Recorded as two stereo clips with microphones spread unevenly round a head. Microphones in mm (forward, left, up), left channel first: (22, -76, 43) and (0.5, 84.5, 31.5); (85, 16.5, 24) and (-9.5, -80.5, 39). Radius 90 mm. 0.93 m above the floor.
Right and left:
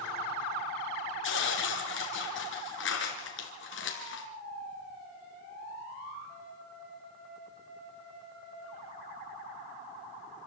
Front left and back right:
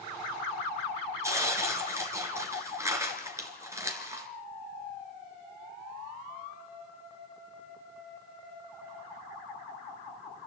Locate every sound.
1.2 s tearing paper: 65° right, 3 m